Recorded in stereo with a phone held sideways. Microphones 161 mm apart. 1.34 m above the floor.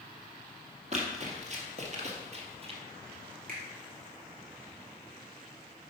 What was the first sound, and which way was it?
Running footsteps, 45° right (ahead or behind).